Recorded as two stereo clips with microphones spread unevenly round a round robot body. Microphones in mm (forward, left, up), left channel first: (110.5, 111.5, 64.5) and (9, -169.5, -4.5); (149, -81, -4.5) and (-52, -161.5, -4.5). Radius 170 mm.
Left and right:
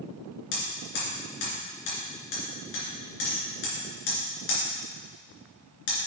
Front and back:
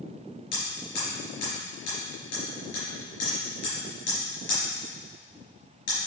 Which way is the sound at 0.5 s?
65° left.